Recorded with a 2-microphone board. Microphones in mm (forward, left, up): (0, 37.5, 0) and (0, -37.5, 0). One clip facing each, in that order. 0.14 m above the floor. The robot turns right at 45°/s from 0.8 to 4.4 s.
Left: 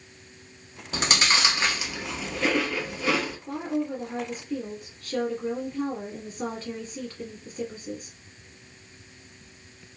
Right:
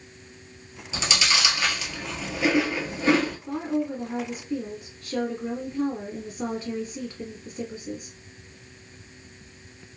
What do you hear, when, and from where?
0.9 s chewing: 55° left (ahead or behind), 0.7 m; by 3.4 s 50° right (ahead or behind), 0.7 m
3.5 s a woman speaking: 25° right (ahead or behind), 1.5 m; by 8.2 s 10° right (ahead or behind), 1.5 m